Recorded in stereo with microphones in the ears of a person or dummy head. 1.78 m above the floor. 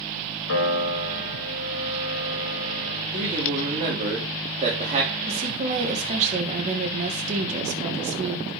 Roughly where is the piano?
Left.